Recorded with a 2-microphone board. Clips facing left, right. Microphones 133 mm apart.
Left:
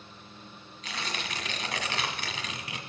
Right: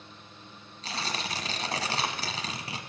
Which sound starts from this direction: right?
Tearing paper, at 0.8 s.